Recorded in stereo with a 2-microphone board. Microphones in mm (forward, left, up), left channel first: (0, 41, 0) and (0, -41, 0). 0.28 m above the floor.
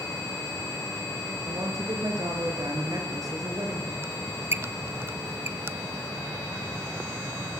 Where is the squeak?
30° right (ahead or behind), 0.7 m.